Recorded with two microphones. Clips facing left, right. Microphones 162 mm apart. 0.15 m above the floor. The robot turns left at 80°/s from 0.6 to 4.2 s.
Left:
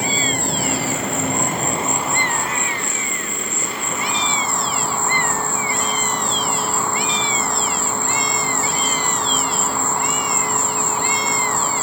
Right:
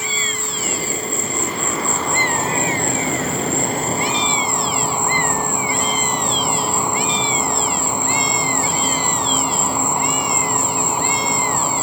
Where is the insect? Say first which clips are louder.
Left 6 dB; 125° left; by 11.8 s 165° right.